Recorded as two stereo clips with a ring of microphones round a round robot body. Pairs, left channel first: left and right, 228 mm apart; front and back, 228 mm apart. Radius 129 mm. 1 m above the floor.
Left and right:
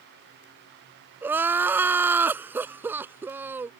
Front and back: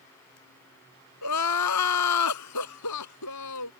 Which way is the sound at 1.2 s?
10° right.